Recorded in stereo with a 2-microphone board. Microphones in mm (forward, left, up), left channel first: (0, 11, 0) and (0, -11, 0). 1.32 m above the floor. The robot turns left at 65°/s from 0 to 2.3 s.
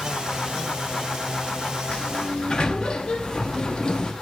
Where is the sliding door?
50° left (ahead or behind), 0.9 m; by 4.1 s 35° left (ahead or behind), 0.9 m.